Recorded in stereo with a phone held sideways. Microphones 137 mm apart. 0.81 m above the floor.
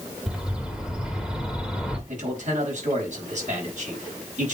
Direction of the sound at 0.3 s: 5° right (ahead or behind).